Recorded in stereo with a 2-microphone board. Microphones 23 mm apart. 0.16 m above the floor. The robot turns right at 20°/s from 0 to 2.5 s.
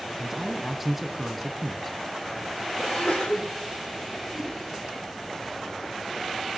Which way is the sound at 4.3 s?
15° right (ahead or behind).